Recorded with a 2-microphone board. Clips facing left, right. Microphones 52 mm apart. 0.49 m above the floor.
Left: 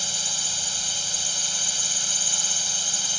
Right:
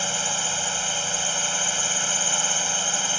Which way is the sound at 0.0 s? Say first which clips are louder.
Right 6 dB; 35° right (ahead or behind).